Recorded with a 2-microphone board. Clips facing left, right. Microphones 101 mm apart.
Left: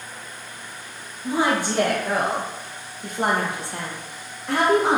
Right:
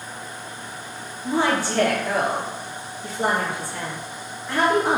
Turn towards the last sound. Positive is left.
turn(degrees=75)  # may be behind; listen again after turning